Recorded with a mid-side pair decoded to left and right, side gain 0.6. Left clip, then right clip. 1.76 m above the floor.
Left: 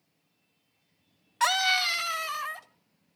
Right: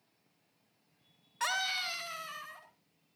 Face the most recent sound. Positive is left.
turn(degrees=50)